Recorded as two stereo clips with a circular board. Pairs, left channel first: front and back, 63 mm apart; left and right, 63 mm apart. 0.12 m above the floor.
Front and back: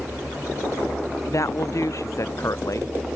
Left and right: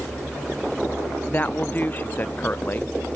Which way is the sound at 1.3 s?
30° left.